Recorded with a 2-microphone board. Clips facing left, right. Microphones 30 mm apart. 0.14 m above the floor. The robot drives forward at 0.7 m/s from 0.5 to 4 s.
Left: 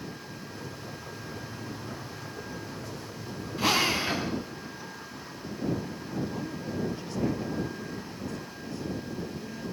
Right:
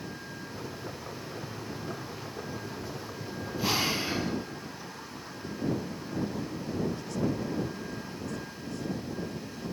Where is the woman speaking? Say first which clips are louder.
Even; 35° left (ahead or behind), 3.5 m.